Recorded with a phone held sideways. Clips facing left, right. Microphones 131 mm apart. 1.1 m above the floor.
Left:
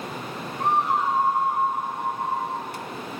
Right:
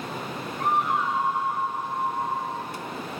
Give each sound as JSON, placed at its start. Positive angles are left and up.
{"t": 0.6, "sound": "a scream", "side_deg": 30, "distance_m": 3.5}